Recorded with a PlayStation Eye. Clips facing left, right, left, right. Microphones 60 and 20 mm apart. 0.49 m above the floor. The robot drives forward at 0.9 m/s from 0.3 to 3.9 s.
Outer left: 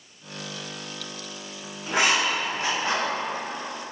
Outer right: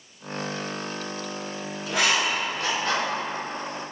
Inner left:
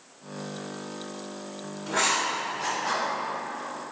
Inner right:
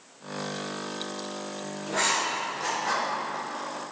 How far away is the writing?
About 3 m.